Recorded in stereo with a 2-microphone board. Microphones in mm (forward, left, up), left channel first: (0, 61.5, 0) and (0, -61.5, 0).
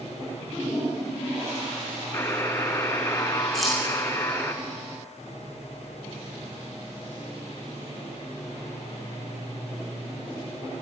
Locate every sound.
2.1 s a buzzer: 25° left (ahead or behind), 1.0 m
3.5 s keys jangling: centre (ahead or behind), 6 m